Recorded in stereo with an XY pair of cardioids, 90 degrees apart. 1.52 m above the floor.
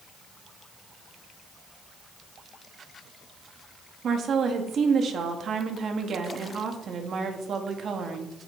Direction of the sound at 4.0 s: 60° right.